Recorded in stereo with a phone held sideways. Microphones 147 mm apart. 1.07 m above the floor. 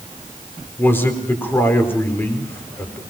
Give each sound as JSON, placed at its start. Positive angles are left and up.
{"t": 0.8, "sound": "a man speaking", "side_deg": 15, "distance_m": 4.0}